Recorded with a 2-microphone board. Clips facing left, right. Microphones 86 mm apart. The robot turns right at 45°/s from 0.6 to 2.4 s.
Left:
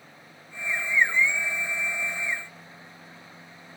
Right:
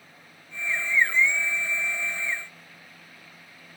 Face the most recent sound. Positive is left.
No sound to turn to.